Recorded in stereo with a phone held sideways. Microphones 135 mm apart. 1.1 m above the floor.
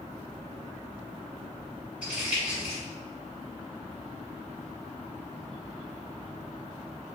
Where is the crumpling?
10° right (ahead or behind), 1.4 m.